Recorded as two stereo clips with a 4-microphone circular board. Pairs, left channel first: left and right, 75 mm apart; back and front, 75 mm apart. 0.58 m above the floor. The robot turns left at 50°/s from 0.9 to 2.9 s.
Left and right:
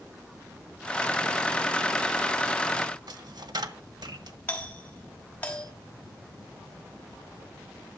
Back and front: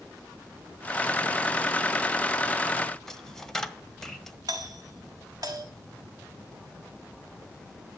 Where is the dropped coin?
95° right, 1.4 m.